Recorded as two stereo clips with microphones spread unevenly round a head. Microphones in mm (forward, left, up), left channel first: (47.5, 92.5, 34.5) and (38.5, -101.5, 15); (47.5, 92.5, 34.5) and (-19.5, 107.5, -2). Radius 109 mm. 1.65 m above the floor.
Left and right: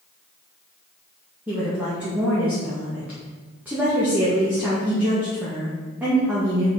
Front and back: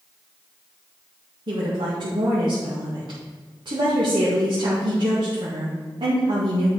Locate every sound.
1.5 s a woman speaking: 175° right, 1.9 m